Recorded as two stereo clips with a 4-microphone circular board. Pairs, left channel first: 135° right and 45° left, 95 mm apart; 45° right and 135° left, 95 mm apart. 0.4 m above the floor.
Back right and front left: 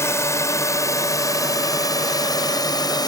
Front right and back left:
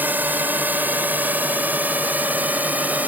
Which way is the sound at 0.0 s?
170° right.